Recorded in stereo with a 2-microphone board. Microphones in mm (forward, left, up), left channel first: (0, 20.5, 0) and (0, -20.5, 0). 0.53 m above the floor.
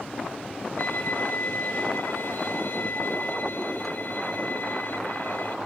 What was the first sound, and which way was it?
A violin, 55° left (ahead or behind).